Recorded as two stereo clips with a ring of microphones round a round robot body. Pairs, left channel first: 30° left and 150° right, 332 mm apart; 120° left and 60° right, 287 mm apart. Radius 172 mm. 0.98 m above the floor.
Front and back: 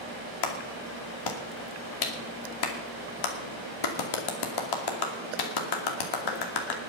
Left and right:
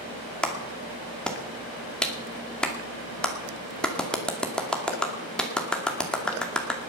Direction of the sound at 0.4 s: 30° left.